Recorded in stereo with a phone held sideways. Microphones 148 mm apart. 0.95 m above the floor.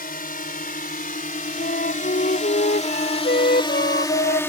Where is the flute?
90° left.